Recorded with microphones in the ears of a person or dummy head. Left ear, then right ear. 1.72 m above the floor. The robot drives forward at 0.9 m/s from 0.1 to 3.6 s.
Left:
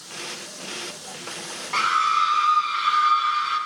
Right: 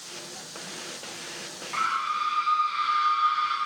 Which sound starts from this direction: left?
A scream, at 1.7 s.